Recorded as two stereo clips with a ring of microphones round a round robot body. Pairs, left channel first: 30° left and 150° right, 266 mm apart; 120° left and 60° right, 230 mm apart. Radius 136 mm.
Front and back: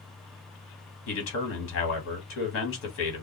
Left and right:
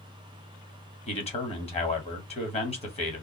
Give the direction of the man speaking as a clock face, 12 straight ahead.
10 o'clock.